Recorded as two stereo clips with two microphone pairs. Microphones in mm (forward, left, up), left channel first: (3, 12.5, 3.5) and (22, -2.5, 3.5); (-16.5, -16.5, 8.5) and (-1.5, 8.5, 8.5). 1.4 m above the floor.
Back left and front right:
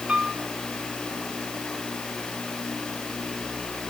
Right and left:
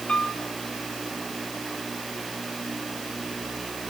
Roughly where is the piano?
Right.